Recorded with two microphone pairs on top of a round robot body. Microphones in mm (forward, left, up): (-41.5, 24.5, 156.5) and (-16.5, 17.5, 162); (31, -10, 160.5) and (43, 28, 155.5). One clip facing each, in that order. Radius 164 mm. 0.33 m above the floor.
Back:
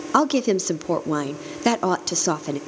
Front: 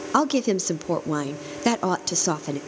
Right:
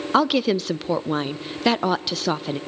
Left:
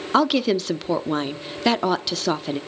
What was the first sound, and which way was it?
A woman speaking, 145° left.